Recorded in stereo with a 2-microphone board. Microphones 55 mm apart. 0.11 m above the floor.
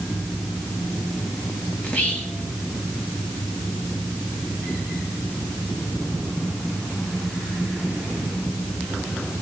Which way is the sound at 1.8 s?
25° left (ahead or behind).